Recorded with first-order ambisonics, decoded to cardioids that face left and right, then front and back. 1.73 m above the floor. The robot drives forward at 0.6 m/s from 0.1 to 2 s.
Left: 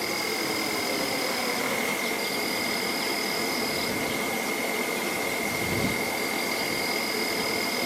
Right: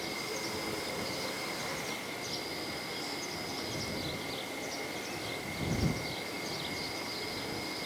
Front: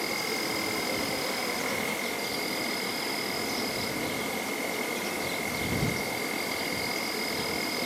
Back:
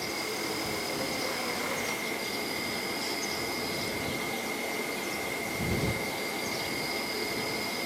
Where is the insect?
55° left, 4 m; by 7.9 s 70° left, 3.5 m.